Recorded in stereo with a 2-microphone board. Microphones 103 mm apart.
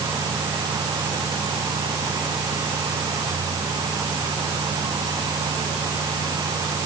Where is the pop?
I don't hear a pop.